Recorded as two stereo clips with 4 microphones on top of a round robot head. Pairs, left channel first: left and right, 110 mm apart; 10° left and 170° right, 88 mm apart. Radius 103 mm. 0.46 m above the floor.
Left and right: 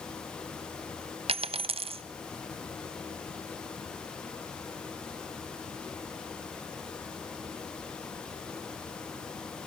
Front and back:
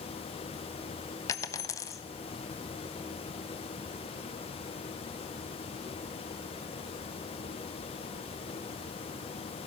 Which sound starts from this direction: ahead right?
A dropped coin, at 1.3 s.